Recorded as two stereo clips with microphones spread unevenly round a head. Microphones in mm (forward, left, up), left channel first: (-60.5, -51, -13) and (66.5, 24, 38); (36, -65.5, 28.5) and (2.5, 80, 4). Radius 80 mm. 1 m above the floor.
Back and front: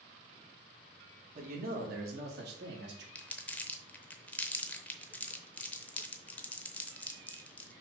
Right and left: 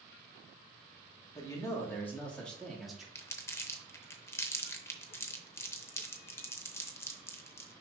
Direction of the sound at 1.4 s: 5° right.